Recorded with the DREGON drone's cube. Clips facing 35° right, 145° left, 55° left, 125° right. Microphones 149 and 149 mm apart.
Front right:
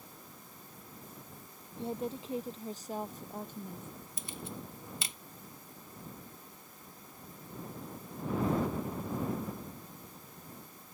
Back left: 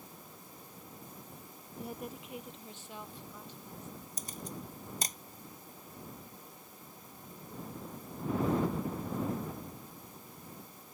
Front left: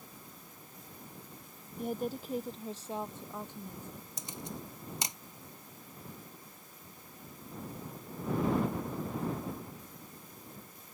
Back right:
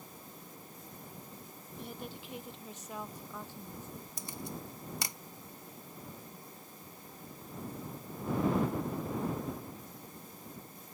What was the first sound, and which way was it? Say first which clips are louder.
A woman speaking: front right 6 dB, front left 10 dB; 25° left.